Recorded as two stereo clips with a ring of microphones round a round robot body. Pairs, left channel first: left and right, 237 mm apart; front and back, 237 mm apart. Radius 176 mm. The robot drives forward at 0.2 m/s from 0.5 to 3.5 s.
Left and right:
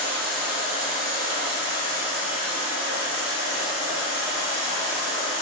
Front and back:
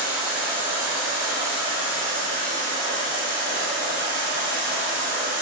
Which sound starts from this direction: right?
Running water, at 0.0 s.